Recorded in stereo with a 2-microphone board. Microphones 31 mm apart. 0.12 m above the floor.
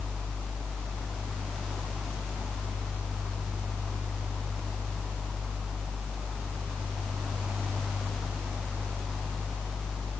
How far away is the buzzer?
I don't hear a buzzer.